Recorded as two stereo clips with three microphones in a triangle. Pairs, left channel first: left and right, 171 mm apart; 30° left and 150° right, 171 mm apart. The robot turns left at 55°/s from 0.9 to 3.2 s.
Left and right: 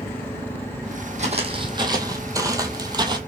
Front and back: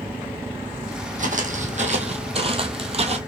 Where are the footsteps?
125° right, 1.1 m; by 3.2 s 140° right, 0.9 m.